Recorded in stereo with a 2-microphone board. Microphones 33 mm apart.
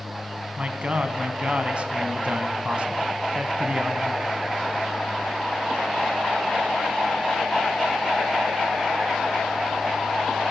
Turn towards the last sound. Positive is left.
turn(degrees=-35)  # may be behind; listen again after turning